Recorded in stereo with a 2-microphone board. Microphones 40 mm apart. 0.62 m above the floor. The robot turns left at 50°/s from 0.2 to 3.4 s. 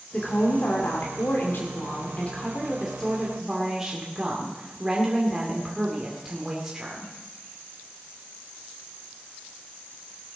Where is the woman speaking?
145° left, 2 m; by 7.1 s 15° right, 2 m.